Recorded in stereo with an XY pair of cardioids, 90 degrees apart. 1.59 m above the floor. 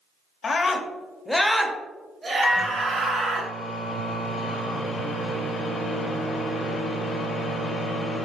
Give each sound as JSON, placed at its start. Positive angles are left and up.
{"t": 0.4, "sound": "a scream", "azimuth_deg": 50, "distance_m": 0.9}
{"t": 2.4, "sound": "a microwave", "azimuth_deg": 60, "distance_m": 1.2}